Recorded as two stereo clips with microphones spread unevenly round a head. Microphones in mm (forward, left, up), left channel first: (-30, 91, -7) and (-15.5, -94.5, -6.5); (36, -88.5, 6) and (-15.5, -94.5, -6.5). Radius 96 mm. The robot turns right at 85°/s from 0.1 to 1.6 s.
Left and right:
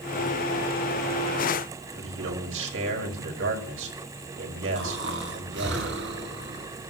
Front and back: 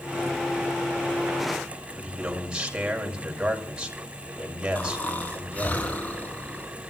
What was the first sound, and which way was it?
A man speaking, 100° right.